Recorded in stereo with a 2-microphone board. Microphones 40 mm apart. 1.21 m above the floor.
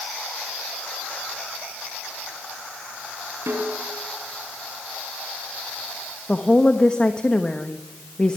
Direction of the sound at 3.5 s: 85° right.